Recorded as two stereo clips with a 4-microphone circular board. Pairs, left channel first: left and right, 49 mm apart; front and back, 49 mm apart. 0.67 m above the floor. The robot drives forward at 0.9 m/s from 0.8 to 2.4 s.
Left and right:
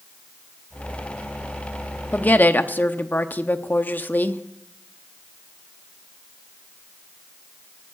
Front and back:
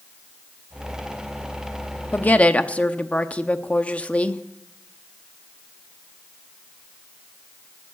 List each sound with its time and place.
2.1 s a woman speaking: 40° left, 0.9 m; by 4.4 s 55° left, 0.8 m